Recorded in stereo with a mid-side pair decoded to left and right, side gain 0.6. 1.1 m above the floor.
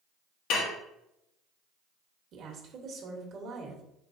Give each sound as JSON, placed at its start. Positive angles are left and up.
{"t": 0.5, "sound": "dishes clattering", "azimuth_deg": 65, "distance_m": 0.9}
{"t": 2.3, "sound": "a woman speaking", "azimuth_deg": -55, "distance_m": 1.5}